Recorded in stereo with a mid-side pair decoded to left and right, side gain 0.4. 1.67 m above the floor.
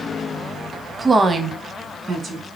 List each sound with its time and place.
1.0 s a woman speaking: 15° right, 0.6 m; by 2.5 s 55° right, 1.3 m